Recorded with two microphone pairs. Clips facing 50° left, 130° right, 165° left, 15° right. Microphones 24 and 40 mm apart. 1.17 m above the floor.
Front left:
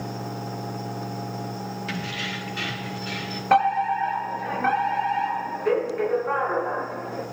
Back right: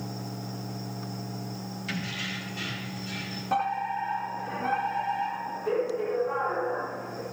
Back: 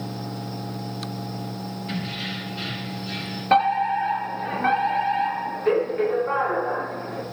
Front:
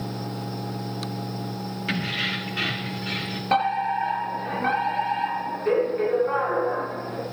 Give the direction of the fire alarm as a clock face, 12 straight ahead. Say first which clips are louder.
Front left 8 dB, back 3 dB; 9 o'clock.